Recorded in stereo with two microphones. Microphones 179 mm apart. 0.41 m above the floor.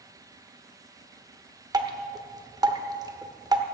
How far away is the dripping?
About 0.9 m.